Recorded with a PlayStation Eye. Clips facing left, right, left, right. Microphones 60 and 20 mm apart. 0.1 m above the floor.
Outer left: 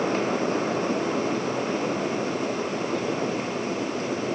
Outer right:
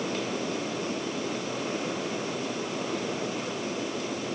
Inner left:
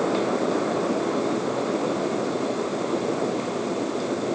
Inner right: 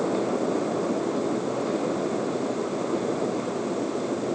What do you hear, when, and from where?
Only background noise.